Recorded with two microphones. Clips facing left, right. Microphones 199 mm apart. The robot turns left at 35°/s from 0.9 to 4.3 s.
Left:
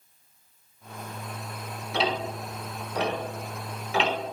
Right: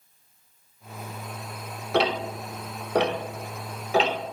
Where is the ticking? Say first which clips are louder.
Right 4 dB; 65° right (ahead or behind), 1.4 m; by 4.1 s 35° right (ahead or behind), 1.4 m.